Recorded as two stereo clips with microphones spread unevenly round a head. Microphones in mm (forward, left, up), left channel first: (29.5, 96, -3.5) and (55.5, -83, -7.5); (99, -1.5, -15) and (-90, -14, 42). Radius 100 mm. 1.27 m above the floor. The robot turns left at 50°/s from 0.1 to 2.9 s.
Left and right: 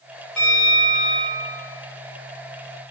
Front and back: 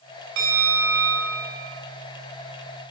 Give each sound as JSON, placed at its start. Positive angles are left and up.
{"t": 0.4, "sound": "a bell", "azimuth_deg": -175, "distance_m": 0.6}